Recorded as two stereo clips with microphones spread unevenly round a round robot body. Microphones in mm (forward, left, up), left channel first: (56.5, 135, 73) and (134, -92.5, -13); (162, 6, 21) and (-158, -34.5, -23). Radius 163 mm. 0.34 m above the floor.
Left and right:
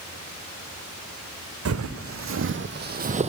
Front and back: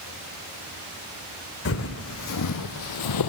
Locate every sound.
1.6 s footsteps: 40° right, 1.2 m; by 3.3 s 5° left, 0.7 m